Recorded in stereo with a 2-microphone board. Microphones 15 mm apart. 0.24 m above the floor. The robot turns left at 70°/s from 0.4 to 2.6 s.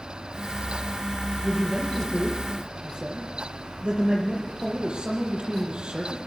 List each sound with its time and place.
1.4 s a man speaking: 5° right, 7.5 m; by 6.2 s 90° right, 7.5 m